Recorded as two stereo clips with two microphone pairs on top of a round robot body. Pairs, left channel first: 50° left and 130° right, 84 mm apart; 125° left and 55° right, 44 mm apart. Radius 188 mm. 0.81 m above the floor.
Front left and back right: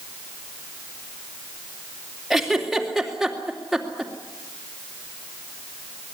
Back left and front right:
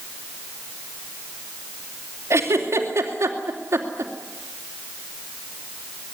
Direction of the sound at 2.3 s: 45° right.